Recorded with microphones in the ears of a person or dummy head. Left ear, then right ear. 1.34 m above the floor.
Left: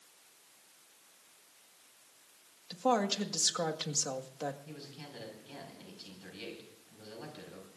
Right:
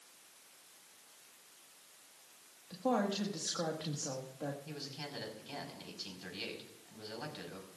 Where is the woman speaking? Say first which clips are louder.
Left 4 dB; 85° left, 1.7 m.